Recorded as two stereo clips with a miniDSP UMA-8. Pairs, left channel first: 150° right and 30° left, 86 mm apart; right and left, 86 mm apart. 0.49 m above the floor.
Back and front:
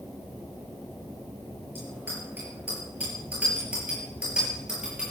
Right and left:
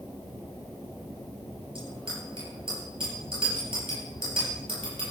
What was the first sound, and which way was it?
A bicycle bell, 95° left.